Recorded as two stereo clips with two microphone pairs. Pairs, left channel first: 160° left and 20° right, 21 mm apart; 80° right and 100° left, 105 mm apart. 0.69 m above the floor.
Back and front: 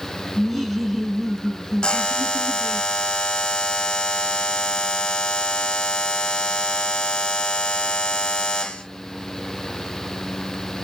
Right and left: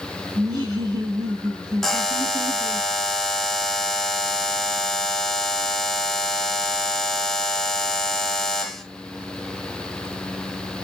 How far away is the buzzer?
About 0.7 m.